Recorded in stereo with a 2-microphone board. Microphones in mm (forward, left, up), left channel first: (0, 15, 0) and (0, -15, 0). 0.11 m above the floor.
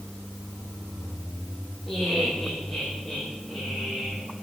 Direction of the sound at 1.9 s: 10° left (ahead or behind).